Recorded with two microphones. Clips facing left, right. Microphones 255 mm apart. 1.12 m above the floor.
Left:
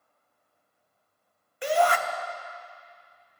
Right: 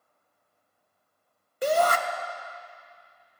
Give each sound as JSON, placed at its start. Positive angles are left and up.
{"t": 1.6, "sound": "a shout", "side_deg": -45, "distance_m": 0.6}